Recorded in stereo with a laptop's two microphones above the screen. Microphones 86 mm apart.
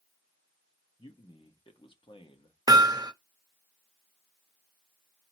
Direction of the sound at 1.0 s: 80° left.